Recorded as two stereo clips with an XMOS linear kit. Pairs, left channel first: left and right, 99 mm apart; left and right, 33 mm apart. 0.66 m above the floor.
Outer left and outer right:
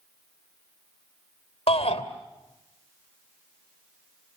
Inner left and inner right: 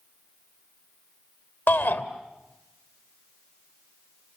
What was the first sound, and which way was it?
A shout, 70° left (ahead or behind).